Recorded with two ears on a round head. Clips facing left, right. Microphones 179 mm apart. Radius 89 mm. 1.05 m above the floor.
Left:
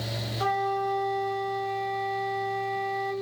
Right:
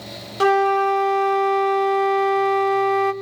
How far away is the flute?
About 1.2 m.